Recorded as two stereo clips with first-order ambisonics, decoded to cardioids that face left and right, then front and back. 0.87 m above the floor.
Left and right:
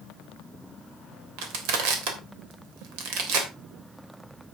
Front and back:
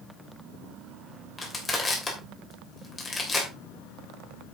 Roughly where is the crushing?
Right.